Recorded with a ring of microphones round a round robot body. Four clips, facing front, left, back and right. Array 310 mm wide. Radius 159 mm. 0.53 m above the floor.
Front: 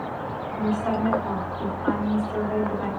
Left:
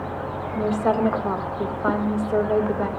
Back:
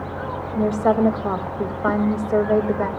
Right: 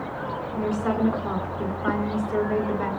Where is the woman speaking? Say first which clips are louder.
Left 4 dB, back 7 dB; 155° left, 3.5 m.